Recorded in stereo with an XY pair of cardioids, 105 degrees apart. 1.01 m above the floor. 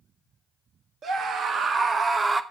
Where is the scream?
60° right, 1.7 m; by 2.4 s 30° right, 1.1 m.